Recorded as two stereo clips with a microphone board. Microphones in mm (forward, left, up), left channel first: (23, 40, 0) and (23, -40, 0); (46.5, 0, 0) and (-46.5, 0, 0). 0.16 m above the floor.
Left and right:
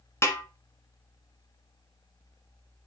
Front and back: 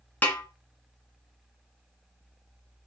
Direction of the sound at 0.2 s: 60° left.